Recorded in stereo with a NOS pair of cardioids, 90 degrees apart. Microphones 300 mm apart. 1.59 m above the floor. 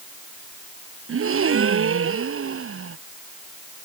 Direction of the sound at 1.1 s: 45° right.